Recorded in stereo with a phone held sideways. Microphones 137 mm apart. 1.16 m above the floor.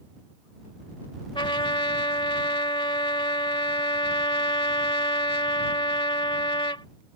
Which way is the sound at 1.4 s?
40° left (ahead or behind).